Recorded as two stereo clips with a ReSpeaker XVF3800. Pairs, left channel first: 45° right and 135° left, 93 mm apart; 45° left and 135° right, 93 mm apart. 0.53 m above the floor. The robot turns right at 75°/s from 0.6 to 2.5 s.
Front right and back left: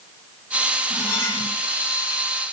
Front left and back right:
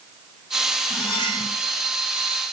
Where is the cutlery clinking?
70° left, 9 m; by 1.5 s 115° left, 9 m.